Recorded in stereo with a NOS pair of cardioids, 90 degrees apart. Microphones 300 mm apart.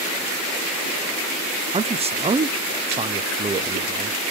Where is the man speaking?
20° right, 0.6 m.